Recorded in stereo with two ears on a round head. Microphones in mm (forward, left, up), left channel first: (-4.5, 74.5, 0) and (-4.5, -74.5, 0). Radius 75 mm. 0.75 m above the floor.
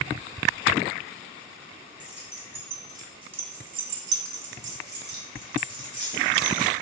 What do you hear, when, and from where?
2.0 s keys jangling: 5° right (ahead or behind), 1.2 m; by 6.7 s 45° right (ahead or behind), 1.7 m